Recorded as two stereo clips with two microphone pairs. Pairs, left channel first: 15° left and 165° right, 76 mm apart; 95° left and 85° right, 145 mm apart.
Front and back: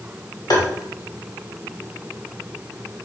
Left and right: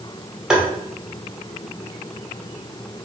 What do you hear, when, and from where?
0.5 s tapping: straight ahead, 2 m